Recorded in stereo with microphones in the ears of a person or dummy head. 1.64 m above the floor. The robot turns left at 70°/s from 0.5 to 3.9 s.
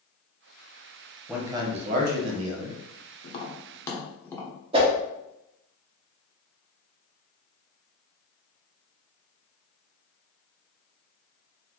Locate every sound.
1.3 s a man speaking: 10° right, 0.8 m; by 2.8 s 115° right, 0.8 m
3.2 s tapping: 40° left (ahead or behind), 0.8 m; by 4.5 s 5° left (ahead or behind), 0.8 m
4.7 s a whoosh: 40° right (ahead or behind), 1.1 m